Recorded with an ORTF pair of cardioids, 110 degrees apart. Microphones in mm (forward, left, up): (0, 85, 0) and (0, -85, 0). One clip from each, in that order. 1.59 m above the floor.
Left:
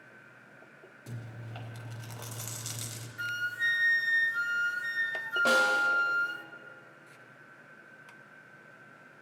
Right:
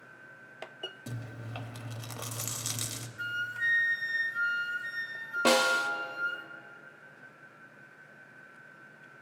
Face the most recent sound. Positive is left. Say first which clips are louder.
# even
turn(degrees=-45)